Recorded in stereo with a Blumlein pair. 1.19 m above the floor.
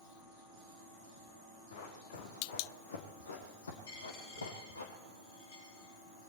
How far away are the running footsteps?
About 4 m.